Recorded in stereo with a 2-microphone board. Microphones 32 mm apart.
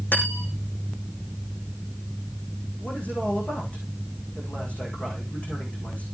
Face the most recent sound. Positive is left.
turn(degrees=45)  # may be behind; listen again after turning